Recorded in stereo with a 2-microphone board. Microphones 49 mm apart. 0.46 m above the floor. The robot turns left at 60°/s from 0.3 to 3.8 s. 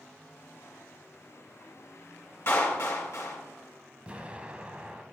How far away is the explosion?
About 0.8 m.